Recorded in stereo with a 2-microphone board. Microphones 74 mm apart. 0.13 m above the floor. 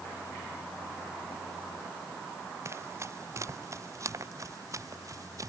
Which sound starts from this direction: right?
Running footsteps, at 2.6 s.